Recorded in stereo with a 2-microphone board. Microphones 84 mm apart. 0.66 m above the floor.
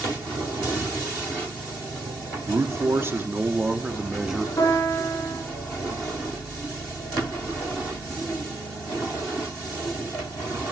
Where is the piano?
50° left (ahead or behind), 8.5 m.